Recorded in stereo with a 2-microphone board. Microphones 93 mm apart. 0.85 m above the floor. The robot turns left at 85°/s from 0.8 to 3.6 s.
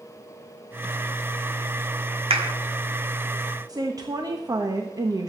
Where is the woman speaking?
40° right (ahead or behind), 1.1 m.